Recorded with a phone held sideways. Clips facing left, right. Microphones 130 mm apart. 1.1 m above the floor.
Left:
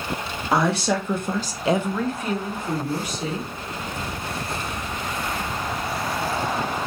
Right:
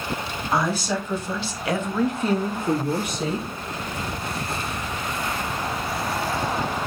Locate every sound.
0.5 s a woman speaking: 65° left (ahead or behind), 1.3 m; by 3.5 s 70° right (ahead or behind), 1.4 m